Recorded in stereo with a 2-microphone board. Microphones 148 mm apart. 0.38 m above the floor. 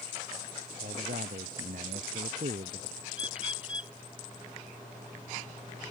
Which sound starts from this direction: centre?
A bird, at 3.1 s.